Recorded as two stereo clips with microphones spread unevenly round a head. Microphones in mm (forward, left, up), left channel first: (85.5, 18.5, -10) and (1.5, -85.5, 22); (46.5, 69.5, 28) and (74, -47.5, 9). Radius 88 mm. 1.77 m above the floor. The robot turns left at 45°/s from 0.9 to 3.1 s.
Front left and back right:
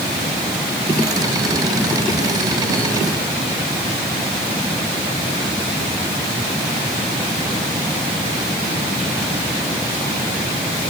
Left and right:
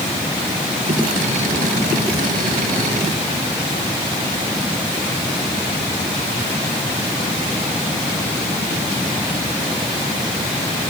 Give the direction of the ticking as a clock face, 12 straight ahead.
I don't hear ticking.